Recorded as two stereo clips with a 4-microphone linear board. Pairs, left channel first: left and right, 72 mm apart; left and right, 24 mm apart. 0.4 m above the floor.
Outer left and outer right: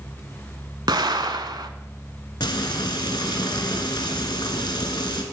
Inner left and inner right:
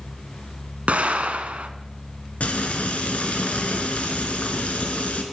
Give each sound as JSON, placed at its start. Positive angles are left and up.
{"t": 0.9, "sound": "an explosion", "side_deg": -70, "distance_m": 0.6}
{"t": 2.4, "sound": "frying", "side_deg": 85, "distance_m": 1.1}